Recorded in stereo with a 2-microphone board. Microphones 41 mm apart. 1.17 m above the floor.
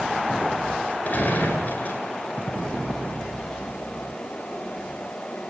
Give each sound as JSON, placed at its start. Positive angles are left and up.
{"t": 1.1, "sound": "a gunshot", "side_deg": 40, "distance_m": 9.5}